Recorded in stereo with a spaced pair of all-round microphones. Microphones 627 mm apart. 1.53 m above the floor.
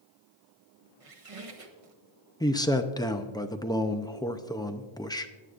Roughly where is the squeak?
Right.